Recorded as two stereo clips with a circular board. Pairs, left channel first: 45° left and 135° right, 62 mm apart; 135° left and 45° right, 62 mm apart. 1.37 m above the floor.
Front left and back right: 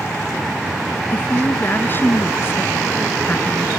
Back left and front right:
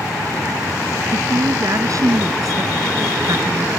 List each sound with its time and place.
1.1 s a woman speaking: 10° right